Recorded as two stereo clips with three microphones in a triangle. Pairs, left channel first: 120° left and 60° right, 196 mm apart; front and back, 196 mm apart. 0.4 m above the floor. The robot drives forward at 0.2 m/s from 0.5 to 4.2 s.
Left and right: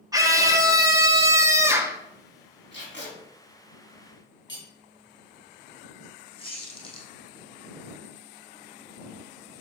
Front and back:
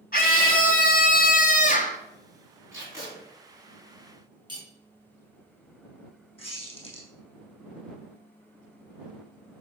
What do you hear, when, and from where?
0.1 s a scream: 5° left, 1.3 m; by 2.0 s 10° left, 1.0 m
2.7 s tape being pulled: 105° left, 3.5 m
4.5 s cutlery clinking: 115° left, 2.5 m
6.4 s a squeak: 55° left, 2.5 m